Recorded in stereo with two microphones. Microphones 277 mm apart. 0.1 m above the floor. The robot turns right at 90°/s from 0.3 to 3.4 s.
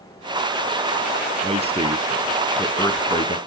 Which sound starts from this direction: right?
A man speaking, at 1.4 s.